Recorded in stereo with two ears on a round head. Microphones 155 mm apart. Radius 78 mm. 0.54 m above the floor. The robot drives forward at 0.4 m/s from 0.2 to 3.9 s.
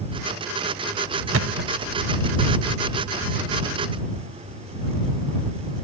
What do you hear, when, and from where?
1.3 s a thud: 85° right; by 1.9 s 75° right (ahead or behind)